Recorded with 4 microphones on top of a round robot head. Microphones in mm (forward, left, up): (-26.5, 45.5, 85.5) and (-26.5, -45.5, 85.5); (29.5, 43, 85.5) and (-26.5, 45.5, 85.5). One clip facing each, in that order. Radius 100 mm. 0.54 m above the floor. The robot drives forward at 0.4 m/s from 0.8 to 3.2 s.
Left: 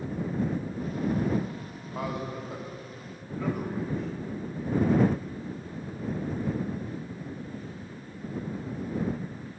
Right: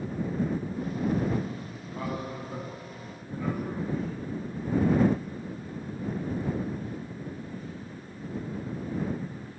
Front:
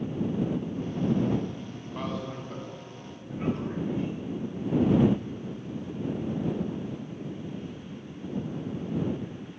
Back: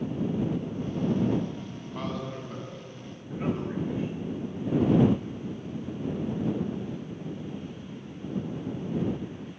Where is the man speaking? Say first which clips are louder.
Left 1 dB, even; 85° left, 2.5 m; by 4.3 s 95° left, 2.5 m.